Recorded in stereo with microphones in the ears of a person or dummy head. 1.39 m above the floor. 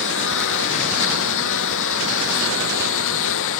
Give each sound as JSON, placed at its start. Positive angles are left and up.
{"t": 0.0, "sound": "a lawn mower", "side_deg": 70}